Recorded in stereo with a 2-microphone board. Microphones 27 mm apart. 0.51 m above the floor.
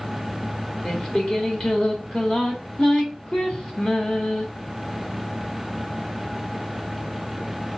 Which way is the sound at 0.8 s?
35° left (ahead or behind).